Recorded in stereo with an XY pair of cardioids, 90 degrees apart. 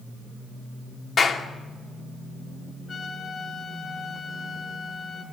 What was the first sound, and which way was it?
A clap, 55° left.